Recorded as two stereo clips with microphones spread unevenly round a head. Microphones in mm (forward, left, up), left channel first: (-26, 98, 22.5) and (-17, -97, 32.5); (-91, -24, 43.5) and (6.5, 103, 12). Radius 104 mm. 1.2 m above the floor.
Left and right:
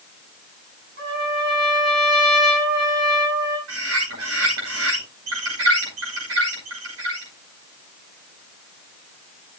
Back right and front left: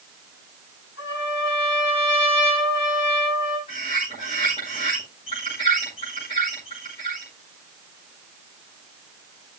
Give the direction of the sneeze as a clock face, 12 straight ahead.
I don't hear a sneeze.